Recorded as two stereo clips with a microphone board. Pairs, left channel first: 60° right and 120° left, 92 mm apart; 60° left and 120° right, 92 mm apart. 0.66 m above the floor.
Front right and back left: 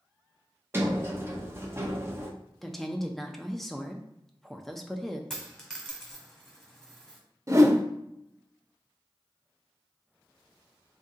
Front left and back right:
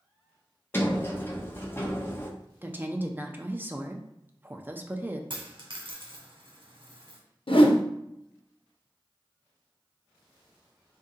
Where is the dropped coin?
145° right, 1.2 m.